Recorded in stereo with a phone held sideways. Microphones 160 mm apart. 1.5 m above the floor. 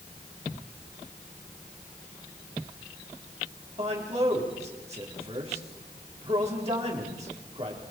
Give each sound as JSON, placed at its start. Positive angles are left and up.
{"t": 3.8, "sound": "a man speaking", "side_deg": -40, "distance_m": 4.0}